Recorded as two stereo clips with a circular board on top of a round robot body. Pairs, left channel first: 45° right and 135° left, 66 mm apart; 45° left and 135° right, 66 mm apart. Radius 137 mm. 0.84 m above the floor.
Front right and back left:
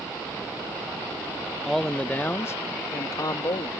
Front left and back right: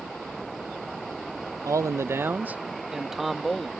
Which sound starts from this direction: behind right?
A man speaking, at 1.6 s.